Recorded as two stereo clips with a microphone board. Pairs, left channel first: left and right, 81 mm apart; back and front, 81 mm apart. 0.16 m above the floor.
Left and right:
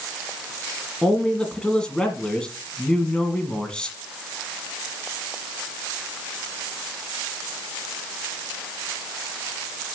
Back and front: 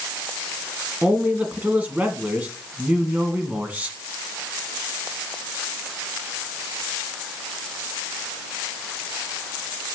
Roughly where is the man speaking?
Ahead left.